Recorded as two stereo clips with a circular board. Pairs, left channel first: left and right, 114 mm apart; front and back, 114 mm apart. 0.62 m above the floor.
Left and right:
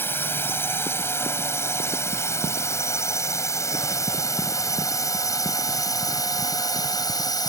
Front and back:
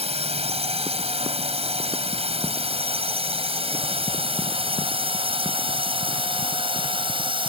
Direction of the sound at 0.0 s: 160° left.